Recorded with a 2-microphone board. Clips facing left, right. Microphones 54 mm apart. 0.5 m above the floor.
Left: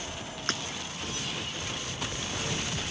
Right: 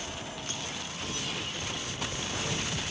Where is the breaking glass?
80° left.